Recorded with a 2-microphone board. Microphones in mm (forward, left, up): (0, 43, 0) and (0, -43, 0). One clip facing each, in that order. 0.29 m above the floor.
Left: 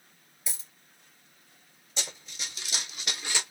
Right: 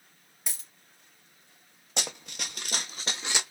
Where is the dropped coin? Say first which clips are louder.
Even; 65° right (ahead or behind), 1.3 m.